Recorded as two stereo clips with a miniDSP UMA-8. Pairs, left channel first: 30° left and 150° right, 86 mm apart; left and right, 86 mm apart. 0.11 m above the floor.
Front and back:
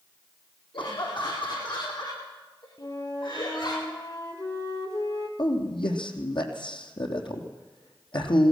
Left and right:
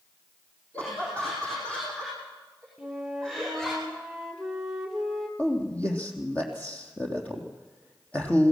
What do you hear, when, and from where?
0.7 s laughter: 20° left, 5.5 m; by 3.8 s 5° left, 7 m
2.8 s a flute: 5° right, 2.5 m
5.4 s a man speaking: 20° left, 3.5 m